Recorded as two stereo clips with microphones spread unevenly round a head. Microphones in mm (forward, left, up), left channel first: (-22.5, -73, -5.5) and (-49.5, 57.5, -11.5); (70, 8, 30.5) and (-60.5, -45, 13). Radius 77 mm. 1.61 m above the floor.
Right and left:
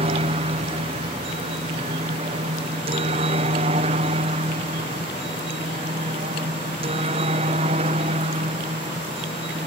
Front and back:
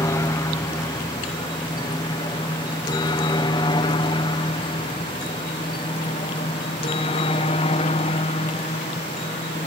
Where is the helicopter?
85° left; by 9.7 s 60° left.